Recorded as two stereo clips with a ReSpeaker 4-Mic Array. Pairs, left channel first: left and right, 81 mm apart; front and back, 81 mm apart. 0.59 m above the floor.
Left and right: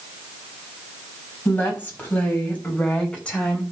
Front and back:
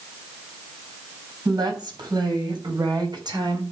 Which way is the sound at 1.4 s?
155° left.